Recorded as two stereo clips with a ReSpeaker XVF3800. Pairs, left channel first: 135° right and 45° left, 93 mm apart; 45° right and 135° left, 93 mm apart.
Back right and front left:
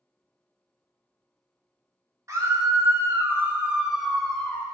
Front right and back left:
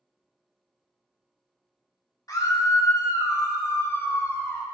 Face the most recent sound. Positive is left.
turn(degrees=-95)